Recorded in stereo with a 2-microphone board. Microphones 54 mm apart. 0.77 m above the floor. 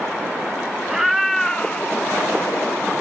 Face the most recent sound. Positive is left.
turn(degrees=50)  # may be behind; listen again after turning